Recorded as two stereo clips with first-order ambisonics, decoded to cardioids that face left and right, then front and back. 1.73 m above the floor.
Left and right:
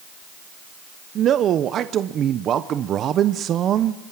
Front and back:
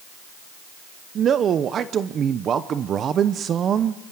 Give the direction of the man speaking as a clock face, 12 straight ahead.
4 o'clock.